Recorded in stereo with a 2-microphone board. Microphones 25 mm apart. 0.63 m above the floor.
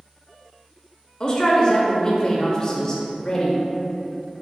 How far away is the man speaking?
About 0.7 m.